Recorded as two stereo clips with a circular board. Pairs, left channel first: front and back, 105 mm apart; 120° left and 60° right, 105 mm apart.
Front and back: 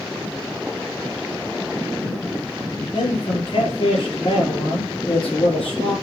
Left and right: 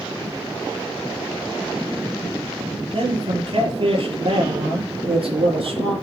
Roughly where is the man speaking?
Ahead right.